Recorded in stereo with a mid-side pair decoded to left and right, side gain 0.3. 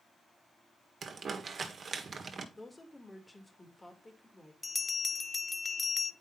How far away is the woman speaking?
About 2.5 m.